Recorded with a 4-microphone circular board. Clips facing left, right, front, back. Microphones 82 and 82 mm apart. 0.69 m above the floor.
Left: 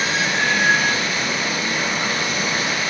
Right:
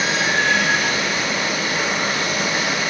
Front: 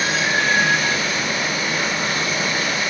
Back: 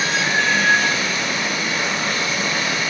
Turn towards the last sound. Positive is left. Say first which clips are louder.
# right 1 dB, even
turn(degrees=-80)